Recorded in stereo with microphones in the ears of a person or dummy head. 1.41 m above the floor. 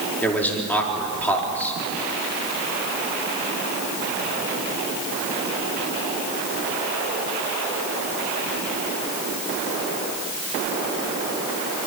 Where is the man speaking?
5° left (ahead or behind), 4 m.